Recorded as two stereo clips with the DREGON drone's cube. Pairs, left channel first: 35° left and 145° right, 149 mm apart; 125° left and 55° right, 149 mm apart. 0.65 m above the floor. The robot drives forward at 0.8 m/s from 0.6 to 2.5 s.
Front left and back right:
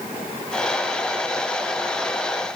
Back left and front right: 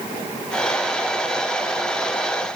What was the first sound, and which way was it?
Only background noise.